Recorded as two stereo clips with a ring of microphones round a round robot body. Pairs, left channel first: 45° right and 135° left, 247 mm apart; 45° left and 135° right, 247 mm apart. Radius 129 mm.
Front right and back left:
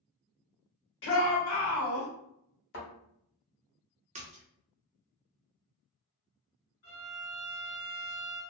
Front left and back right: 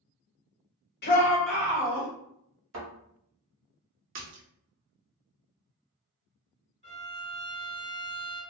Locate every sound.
1.0 s a shout: 5° right, 1.1 m; by 2.1 s 80° right, 1.6 m
2.7 s a thud: 95° right, 1.4 m
4.2 s a splash: 165° right, 0.7 m
6.8 s a violin: 75° right, 1.4 m